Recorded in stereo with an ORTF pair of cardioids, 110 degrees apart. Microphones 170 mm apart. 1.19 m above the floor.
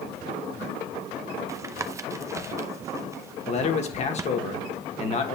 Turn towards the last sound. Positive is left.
turn(degrees=40)